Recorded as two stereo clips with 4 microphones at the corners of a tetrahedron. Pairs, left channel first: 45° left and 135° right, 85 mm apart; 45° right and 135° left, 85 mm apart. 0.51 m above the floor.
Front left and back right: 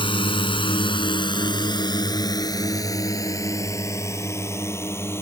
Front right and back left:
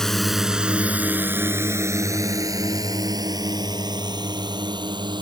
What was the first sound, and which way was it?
A drone, 40° left.